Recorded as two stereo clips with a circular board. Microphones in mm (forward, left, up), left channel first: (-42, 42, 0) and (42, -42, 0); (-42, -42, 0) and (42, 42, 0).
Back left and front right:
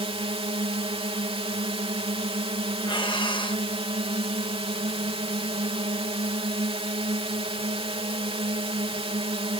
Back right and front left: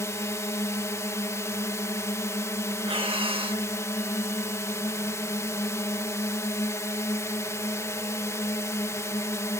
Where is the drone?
75° right.